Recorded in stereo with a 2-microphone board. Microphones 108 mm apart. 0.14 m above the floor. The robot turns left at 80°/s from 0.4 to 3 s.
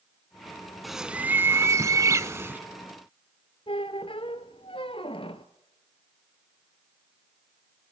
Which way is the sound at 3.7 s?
65° left (ahead or behind).